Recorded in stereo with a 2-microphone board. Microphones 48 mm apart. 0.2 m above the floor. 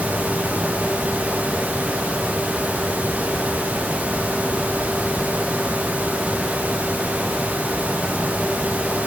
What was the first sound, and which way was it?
Only background noise.